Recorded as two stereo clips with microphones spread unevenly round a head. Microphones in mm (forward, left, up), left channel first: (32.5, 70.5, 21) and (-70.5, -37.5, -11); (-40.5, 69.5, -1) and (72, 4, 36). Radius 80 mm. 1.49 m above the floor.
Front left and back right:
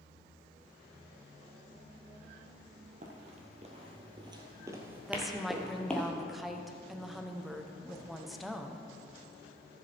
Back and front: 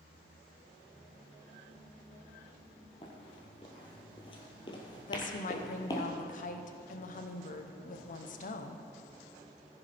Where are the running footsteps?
150° right, 1.8 m; by 6.1 s 80° left, 1.6 m.